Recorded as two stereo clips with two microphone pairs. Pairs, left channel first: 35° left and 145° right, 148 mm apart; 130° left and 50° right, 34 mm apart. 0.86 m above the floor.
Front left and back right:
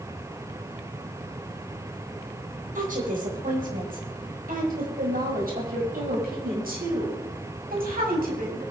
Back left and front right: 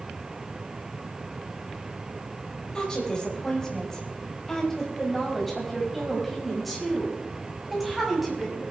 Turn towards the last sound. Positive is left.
turn(degrees=-135)